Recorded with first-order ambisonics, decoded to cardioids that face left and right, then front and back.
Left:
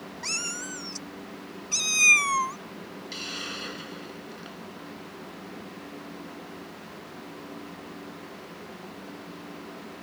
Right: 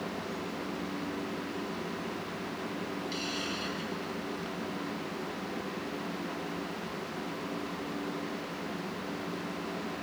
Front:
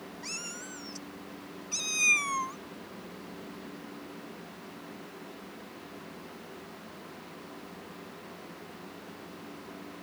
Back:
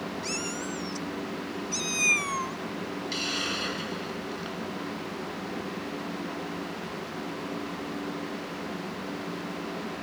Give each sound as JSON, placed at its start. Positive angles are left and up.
{"t": 0.2, "sound": "a cat meowing", "azimuth_deg": 105}
{"t": 3.1, "sound": "a hiss", "azimuth_deg": 170}